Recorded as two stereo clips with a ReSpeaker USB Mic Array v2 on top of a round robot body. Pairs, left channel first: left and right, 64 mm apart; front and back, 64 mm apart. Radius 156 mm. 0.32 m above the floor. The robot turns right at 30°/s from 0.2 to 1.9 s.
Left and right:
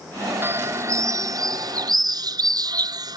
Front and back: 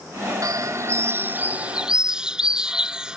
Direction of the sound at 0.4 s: 145° right.